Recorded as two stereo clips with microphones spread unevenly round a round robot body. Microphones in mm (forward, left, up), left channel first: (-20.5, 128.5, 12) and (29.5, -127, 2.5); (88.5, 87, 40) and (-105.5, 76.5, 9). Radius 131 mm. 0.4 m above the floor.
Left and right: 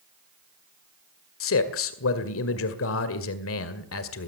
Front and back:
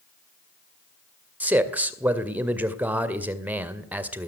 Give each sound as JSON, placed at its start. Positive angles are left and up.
{"t": 1.4, "sound": "a man speaking", "azimuth_deg": 110, "distance_m": 2.0}